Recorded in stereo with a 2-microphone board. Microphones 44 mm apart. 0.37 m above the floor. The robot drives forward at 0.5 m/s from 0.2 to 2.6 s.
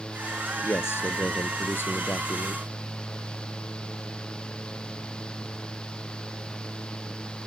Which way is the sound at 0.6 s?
65° left (ahead or behind).